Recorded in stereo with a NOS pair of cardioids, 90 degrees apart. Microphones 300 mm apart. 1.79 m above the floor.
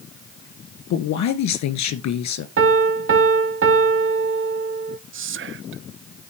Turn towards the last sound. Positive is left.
turn(degrees=-40)